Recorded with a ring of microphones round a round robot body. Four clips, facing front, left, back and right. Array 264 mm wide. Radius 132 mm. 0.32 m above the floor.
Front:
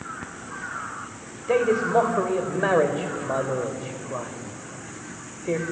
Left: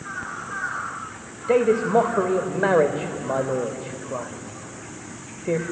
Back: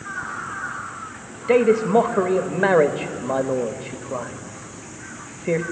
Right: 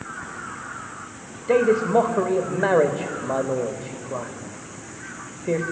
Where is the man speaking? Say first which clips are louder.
Even, back 5 dB; 175° right, 0.8 m.